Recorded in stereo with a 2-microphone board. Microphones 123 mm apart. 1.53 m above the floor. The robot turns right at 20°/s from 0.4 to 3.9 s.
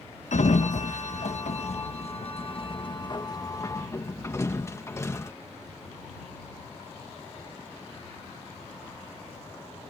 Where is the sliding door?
70° left (ahead or behind); by 5.3 s 20° left (ahead or behind).